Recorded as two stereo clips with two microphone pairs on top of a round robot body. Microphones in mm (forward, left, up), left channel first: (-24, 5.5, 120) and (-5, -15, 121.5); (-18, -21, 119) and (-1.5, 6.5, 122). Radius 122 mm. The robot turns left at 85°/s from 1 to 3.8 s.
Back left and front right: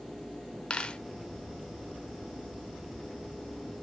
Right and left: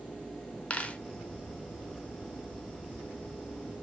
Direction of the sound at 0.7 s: 175° right.